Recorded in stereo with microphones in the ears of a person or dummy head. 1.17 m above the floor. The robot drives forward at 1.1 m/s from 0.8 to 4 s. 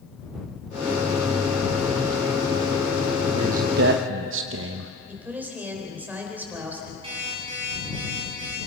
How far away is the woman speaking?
About 4 m.